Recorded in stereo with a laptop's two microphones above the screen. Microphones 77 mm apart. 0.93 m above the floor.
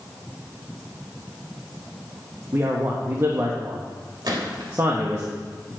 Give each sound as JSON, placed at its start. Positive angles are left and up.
{"t": 2.5, "sound": "a man speaking", "side_deg": -45, "distance_m": 1.4}
{"t": 4.2, "sound": "a gunshot", "side_deg": -70, "distance_m": 2.5}